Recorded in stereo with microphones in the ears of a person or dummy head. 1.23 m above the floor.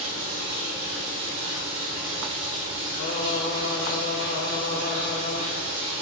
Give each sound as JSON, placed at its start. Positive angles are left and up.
{"t": 0.0, "sound": "running water", "side_deg": -70, "distance_m": 3.5}
{"t": 3.0, "sound": "singing", "side_deg": 70, "distance_m": 2.5}